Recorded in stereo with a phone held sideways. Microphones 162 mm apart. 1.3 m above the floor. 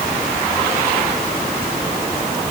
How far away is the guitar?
I don't hear a guitar.